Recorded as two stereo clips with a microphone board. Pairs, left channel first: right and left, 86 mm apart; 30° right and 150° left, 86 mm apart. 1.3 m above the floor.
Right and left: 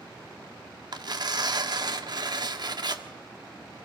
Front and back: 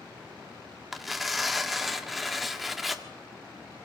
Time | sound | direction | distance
0.9 | tearing paper | 60° left | 1.4 m